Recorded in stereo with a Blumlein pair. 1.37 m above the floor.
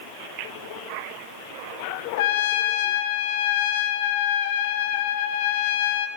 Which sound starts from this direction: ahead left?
A trumpet, at 2.2 s.